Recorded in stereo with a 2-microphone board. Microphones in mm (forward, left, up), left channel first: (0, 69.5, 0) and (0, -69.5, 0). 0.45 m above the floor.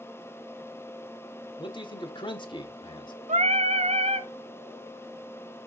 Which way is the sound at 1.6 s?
35° left (ahead or behind).